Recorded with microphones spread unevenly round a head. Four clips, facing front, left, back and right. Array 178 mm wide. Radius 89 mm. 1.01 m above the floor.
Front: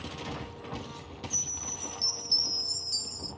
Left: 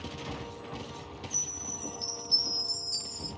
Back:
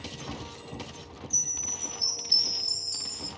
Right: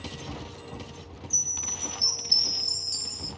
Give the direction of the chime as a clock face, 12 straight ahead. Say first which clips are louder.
Even, front 1 dB; 12 o'clock.